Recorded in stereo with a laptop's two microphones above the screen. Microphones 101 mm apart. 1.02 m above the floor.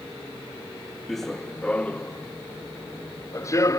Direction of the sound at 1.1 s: Centre (ahead or behind).